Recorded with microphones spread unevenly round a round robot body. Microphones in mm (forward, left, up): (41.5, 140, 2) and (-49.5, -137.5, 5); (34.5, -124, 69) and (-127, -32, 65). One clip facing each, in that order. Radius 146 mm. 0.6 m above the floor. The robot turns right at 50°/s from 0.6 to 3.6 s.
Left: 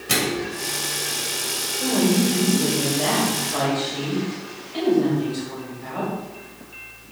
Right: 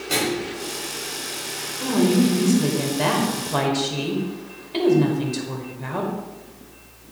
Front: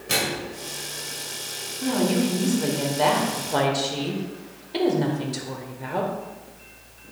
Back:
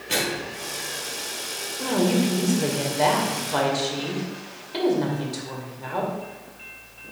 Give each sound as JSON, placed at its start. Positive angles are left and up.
{"t": 0.1, "sound": "a microwave", "azimuth_deg": 20, "distance_m": 2.0}
{"t": 1.8, "sound": "a woman speaking", "azimuth_deg": 175, "distance_m": 2.0}